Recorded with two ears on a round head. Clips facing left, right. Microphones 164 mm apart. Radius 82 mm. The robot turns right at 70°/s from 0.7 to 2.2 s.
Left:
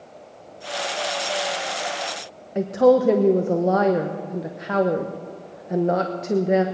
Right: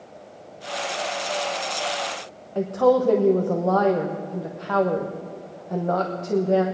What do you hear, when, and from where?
2.5 s a woman speaking: 20° left (ahead or behind), 0.8 m